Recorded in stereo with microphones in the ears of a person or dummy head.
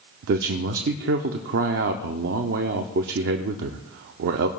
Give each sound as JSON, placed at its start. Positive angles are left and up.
{"t": 0.2, "sound": "a man speaking", "side_deg": -55, "distance_m": 0.6}